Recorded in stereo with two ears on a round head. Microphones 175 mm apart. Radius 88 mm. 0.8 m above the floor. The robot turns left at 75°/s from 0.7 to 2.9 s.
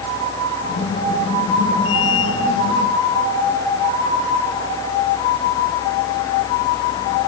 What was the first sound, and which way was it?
Only background noise.